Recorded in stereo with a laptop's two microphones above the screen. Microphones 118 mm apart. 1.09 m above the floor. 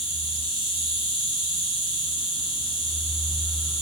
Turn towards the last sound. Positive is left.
turn(degrees=50)  # may be behind; listen again after turning